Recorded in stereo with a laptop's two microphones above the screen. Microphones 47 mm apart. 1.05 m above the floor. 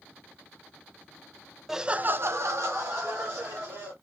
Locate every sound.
1.7 s laughter: 5° right (ahead or behind), 0.7 m; by 3.9 s 60° right (ahead or behind), 2 m